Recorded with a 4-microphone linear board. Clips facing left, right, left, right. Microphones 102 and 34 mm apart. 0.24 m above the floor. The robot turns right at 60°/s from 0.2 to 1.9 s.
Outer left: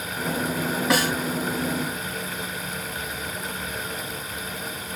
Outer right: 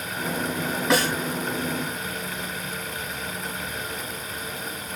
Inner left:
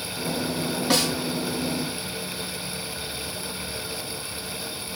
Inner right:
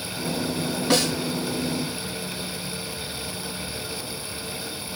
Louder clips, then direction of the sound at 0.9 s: Outer right 1 dB, inner right 2 dB; centre (ahead or behind).